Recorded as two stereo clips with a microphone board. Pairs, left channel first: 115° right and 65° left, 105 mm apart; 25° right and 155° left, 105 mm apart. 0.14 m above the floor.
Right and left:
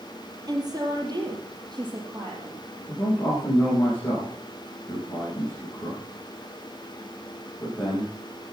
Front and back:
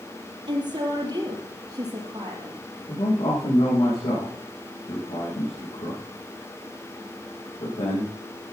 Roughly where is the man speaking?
Ahead right.